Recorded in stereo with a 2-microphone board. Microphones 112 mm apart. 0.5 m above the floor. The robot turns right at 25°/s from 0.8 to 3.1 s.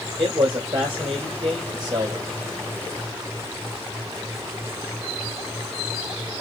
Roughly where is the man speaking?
Right.